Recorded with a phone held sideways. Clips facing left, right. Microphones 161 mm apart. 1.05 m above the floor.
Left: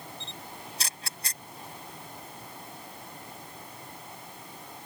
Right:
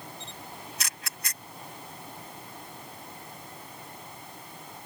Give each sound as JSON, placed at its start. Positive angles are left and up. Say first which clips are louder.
{"t": 0.2, "sound": "a camera shutter", "louder": "even", "side_deg": 30}